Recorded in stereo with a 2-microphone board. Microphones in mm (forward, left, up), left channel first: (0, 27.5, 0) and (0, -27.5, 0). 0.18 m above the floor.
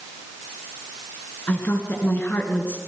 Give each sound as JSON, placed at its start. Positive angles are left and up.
{"t": 1.5, "sound": "a woman speaking", "side_deg": 40, "distance_m": 2.5}